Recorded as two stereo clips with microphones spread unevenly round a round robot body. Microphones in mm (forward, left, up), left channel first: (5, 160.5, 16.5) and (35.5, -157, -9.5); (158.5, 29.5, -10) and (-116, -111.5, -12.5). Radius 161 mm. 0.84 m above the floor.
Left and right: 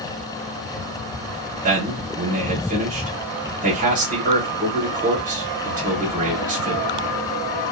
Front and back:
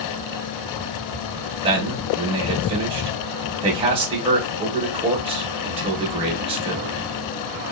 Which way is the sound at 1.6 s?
100° right.